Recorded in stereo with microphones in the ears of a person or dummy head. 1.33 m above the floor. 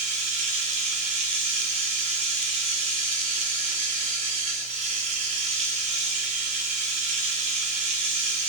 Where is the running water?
35° right (ahead or behind), 1.2 m.